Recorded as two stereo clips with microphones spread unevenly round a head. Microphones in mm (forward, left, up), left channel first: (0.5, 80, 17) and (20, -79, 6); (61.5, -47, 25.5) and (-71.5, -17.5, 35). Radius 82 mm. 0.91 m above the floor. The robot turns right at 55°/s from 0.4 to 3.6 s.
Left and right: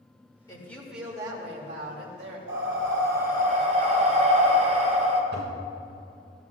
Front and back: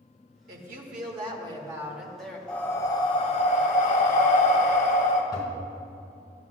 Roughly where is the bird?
I don't hear a bird.